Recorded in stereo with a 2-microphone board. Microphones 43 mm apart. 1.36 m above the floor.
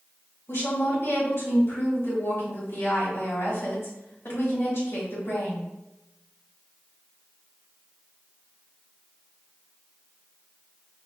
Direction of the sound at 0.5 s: 65° left (ahead or behind).